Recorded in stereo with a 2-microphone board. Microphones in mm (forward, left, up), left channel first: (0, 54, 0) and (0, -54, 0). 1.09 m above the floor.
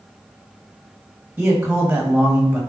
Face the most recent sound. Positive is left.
turn(degrees=-10)  # may be behind; listen again after turning